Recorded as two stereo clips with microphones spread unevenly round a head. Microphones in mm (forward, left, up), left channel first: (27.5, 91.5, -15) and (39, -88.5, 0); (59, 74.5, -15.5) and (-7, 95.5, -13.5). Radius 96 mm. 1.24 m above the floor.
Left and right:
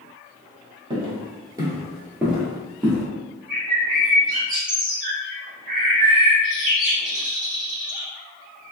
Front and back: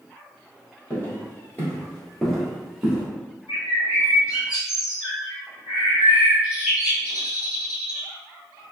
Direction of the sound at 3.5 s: 125° right.